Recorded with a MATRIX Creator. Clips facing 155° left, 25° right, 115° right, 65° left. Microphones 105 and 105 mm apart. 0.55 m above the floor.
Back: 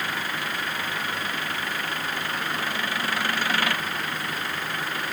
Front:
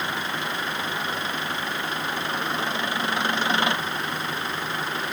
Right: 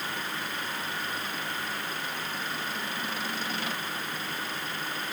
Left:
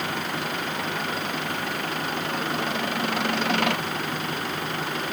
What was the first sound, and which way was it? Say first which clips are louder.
An engine running: front 1 dB, left 6 dB; 45° left.